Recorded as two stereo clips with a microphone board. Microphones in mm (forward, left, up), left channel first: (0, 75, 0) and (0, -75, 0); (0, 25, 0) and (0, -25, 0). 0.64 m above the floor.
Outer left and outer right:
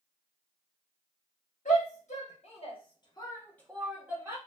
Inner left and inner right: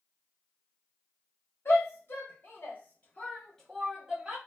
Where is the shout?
60° left (ahead or behind), 1.3 m; by 4.4 s 20° right (ahead or behind), 0.8 m.